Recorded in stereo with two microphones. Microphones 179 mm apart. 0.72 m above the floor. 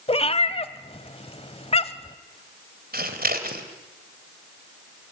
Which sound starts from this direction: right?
Scissors, at 2.9 s.